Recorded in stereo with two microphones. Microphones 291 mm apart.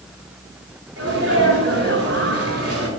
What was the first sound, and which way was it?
A sneeze, 50° right (ahead or behind).